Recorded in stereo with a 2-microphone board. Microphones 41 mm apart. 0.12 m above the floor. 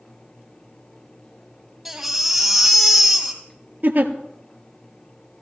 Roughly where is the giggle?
Right.